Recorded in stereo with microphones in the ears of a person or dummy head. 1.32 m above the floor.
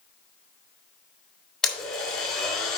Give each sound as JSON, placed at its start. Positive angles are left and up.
{"t": 1.6, "sound": "a blender", "side_deg": 5, "distance_m": 3.0}